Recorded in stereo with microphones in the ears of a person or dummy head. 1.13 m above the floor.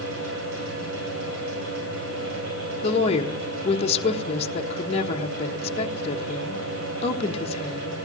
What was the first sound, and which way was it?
A fan, 75° right (ahead or behind).